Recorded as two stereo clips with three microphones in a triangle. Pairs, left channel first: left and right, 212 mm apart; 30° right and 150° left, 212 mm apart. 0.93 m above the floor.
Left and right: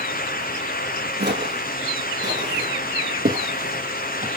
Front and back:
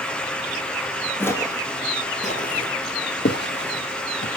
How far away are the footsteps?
About 1.7 m.